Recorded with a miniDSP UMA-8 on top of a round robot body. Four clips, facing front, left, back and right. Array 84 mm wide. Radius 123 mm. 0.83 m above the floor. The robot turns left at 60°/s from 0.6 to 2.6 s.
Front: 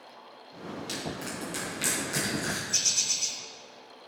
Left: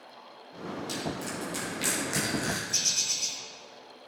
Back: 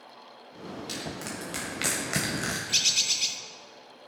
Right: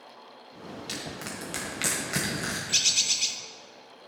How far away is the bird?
About 0.7 m.